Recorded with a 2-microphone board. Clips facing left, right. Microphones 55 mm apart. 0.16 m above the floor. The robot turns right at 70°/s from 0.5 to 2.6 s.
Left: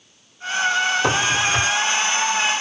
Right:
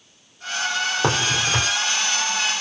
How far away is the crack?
About 2 m.